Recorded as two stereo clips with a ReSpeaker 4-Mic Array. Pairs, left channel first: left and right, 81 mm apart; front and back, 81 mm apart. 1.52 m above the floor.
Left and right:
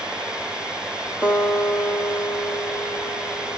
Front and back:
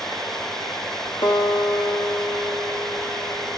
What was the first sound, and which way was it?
A guitar, 15° right.